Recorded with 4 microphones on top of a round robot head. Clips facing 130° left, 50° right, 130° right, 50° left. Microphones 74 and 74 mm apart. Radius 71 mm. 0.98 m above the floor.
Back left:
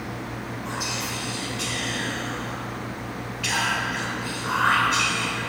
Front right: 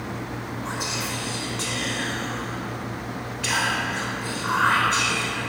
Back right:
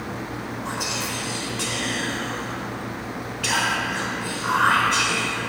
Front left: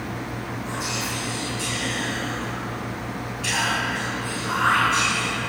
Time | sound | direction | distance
0.7 | whispering | 105° right | 4.5 m